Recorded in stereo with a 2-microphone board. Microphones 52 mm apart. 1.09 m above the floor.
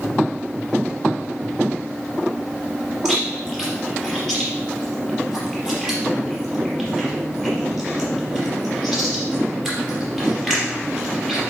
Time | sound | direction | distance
3.0 | chewing | 10° left (ahead or behind) | 4 m